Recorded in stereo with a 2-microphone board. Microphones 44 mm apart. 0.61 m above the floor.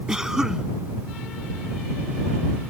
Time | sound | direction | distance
0.1 | a cough | 15° right (ahead or behind) | ?